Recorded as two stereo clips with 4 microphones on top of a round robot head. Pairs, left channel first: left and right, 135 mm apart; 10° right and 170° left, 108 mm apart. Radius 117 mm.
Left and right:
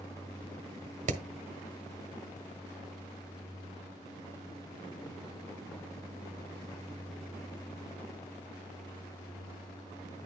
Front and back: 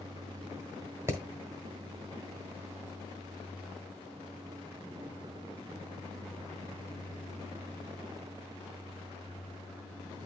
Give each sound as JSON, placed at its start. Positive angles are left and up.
{"t": 1.1, "sound": "hammering", "azimuth_deg": -120, "distance_m": 1.0}